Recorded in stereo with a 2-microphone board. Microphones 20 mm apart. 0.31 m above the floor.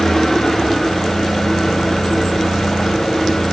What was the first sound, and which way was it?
An engine running, 20° left (ahead or behind).